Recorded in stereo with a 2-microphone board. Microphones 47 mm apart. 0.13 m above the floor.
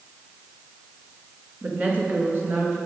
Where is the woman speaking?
30° right (ahead or behind), 1.6 m; by 2.8 s 55° right (ahead or behind), 2.5 m.